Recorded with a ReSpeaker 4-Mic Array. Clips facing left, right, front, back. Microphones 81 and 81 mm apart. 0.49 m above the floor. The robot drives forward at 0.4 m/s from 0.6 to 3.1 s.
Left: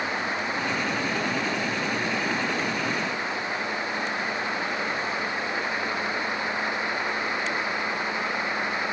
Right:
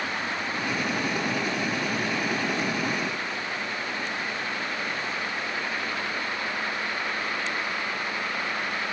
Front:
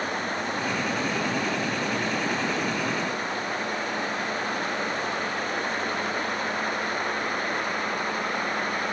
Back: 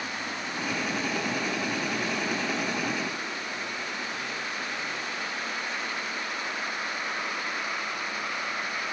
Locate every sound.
Only background noise.